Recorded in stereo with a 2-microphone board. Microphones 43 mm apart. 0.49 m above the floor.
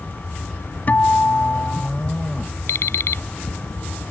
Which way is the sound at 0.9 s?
40° left (ahead or behind).